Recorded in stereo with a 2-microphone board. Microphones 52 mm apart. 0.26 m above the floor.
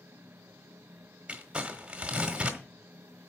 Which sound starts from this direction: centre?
Crumpling, at 1.3 s.